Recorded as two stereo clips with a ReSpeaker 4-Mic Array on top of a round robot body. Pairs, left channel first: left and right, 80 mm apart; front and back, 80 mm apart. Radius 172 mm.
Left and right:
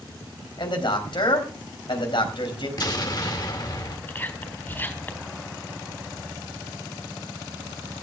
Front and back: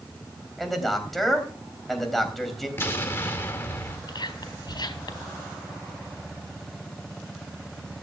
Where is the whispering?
25° left, 3.5 m.